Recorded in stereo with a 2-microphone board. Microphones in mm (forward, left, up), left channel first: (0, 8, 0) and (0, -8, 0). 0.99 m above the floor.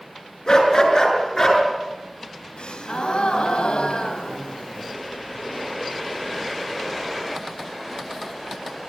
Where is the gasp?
75° left (ahead or behind), 3.5 m.